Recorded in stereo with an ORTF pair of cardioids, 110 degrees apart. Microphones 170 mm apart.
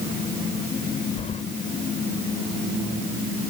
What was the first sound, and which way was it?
Keys jangling, 40° left.